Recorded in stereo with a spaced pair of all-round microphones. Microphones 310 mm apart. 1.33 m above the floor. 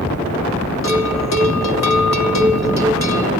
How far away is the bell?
About 0.9 m.